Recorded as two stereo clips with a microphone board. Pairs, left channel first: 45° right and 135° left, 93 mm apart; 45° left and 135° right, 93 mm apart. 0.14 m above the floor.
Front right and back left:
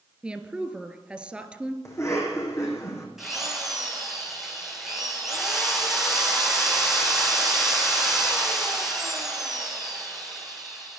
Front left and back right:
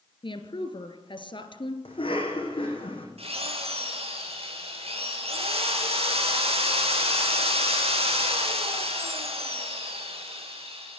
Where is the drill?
140° right, 4 m.